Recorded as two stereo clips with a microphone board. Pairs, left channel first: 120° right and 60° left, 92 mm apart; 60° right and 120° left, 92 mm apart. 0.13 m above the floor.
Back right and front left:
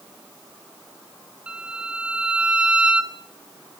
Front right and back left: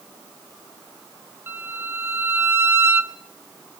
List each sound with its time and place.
1.5 s a violin: 120° left, 1.1 m